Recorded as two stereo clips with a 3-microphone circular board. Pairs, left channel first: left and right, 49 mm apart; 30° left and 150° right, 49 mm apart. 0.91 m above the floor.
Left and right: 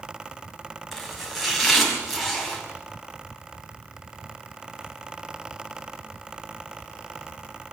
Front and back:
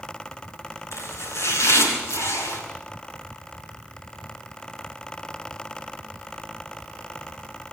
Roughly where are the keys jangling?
I don't hear keys jangling.